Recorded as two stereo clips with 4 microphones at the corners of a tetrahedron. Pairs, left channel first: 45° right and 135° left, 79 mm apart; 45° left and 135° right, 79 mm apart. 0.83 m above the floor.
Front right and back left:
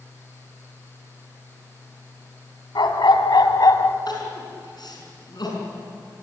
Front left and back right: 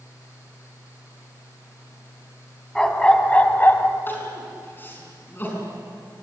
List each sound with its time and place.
2.8 s a dog barking: 35° right, 2.0 m; by 4.0 s 10° right, 1.6 m
4.1 s crying: 15° right, 5 m